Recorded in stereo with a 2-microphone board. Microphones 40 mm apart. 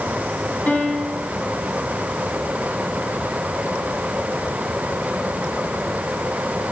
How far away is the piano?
About 2 m.